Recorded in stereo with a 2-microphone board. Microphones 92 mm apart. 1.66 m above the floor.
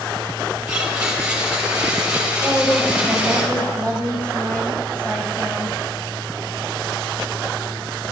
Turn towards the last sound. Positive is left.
turn(degrees=25)  # may be behind; listen again after turning